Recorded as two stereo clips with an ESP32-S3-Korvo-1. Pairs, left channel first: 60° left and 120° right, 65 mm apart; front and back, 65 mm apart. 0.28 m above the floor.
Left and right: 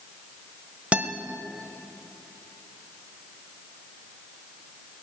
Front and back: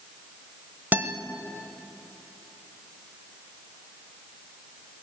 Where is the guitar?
165° right, 1.2 m.